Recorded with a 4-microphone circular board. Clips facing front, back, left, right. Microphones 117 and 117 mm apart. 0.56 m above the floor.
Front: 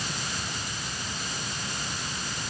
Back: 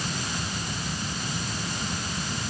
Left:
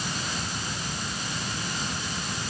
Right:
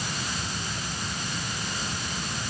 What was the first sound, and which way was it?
Only background noise.